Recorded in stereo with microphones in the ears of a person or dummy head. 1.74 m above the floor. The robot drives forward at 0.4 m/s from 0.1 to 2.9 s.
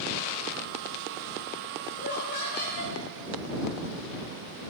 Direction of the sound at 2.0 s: 60° left (ahead or behind).